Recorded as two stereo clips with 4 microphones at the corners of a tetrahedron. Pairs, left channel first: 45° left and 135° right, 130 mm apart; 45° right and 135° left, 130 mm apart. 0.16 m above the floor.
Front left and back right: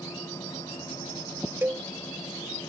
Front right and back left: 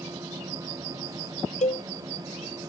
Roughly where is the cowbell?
Ahead right.